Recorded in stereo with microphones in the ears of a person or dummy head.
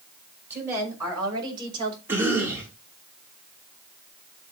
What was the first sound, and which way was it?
A woman speaking, 15° right (ahead or behind).